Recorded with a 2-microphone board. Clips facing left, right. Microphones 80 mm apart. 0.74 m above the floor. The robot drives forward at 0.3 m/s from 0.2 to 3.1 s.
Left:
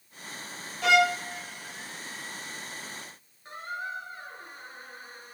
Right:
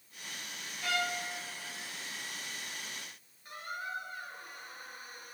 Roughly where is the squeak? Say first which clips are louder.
Left 4 dB; left.